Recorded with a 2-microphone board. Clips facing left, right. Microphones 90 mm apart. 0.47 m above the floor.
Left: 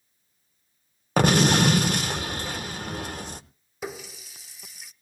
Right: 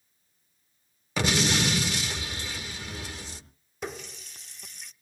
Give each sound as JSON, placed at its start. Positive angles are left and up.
{"t": 1.2, "sound": "an explosion", "side_deg": 50, "distance_m": 0.7}
{"t": 3.8, "sound": "a running tap", "side_deg": 5, "distance_m": 0.6}